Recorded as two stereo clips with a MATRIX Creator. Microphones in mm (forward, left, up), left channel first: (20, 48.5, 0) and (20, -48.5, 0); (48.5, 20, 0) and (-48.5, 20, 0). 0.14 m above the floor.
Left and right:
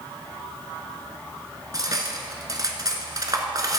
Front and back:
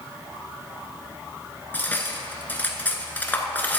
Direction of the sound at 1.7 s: 65° right.